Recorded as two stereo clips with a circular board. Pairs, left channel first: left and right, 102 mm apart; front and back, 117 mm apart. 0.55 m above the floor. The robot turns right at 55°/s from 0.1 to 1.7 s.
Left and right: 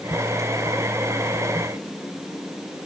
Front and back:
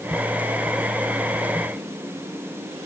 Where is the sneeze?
No sneeze in this recording.